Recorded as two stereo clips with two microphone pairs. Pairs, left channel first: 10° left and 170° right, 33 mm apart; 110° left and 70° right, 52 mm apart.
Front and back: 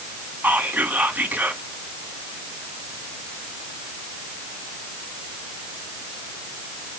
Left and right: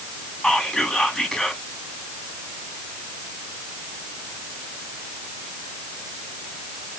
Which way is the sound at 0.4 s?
Straight behind.